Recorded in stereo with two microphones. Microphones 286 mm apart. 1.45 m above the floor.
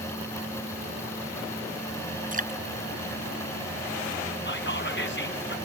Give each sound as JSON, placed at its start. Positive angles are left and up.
{"t": 2.3, "sound": "dripping", "side_deg": -30}
{"t": 4.5, "sound": "whispering", "side_deg": 40}